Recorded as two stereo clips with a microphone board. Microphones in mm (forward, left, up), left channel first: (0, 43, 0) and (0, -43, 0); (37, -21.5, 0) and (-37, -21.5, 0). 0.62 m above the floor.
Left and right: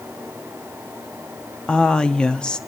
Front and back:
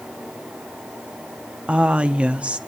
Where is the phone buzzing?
No phone buzzing in this recording.